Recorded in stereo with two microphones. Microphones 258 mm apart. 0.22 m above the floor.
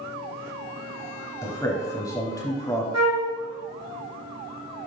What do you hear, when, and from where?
1.4 s a man speaking: 15° left (ahead or behind), 1.2 m
2.9 s a flute: 80° right, 1.8 m